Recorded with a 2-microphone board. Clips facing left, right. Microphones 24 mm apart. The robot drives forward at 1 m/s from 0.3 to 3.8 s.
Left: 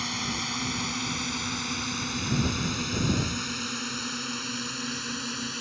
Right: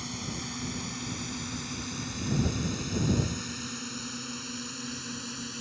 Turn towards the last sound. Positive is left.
turn(degrees=25)  # may be behind; listen again after turning